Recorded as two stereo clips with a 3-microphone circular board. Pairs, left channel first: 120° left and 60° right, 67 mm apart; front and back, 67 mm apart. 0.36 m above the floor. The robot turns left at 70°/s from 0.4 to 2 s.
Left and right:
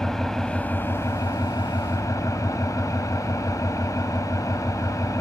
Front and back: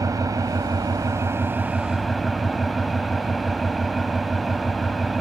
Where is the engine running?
160° right, 1.2 m; by 5.2 s 90° left, 1.2 m.